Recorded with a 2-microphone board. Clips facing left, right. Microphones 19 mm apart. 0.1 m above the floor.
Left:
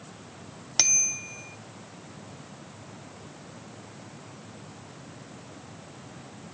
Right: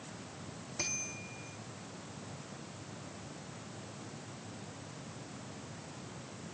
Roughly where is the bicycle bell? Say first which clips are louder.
Left 15 dB; left.